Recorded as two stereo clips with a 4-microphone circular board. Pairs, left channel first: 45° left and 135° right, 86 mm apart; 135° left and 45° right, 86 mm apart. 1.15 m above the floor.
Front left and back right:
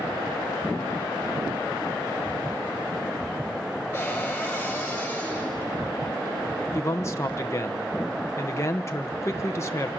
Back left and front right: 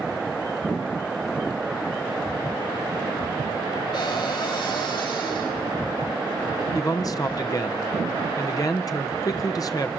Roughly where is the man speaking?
Left.